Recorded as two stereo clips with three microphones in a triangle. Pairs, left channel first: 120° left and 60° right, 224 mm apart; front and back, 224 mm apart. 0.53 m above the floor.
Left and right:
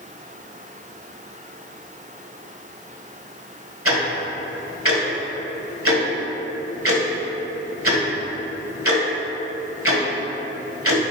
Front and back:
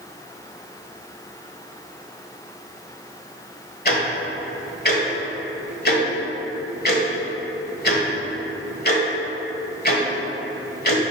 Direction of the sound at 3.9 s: 45° right.